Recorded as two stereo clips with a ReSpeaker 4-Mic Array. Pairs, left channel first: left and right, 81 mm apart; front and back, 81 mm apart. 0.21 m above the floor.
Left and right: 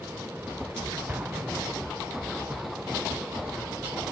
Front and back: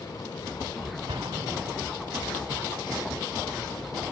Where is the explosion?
160° right.